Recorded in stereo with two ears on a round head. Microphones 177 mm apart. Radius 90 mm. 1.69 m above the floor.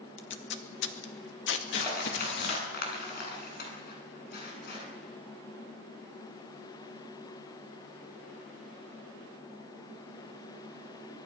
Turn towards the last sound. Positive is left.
turn(degrees=55)  # may be behind; listen again after turning